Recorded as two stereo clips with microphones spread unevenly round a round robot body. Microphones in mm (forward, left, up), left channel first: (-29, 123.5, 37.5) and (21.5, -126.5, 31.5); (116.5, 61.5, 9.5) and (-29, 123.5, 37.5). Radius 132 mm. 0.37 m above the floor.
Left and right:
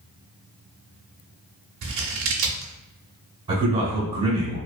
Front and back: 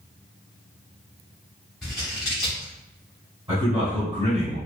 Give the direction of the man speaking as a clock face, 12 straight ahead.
5 o'clock.